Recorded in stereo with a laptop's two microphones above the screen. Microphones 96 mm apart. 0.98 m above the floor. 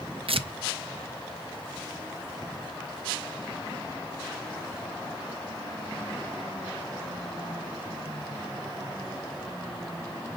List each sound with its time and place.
0.3 s tearing paper: 75° right (ahead or behind), 0.6 m